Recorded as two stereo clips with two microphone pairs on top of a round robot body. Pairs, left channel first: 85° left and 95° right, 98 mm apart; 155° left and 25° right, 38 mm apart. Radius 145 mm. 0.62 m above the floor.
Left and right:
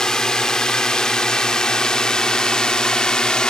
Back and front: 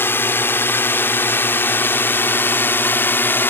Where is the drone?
165° left.